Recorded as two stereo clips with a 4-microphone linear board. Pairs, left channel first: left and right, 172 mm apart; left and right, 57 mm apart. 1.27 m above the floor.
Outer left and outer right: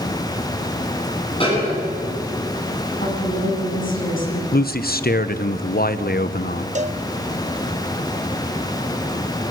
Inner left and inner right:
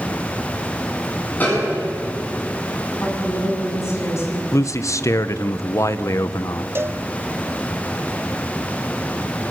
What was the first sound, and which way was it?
A snare drum, 35° left (ahead or behind).